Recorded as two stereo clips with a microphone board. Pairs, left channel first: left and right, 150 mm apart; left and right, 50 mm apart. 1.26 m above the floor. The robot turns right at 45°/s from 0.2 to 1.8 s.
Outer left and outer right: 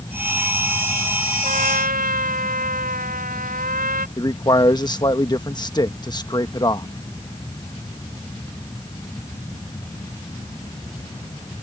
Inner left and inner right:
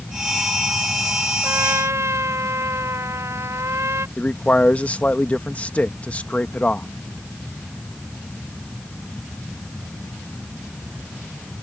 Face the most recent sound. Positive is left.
turn(degrees=30)  # may be behind; listen again after turning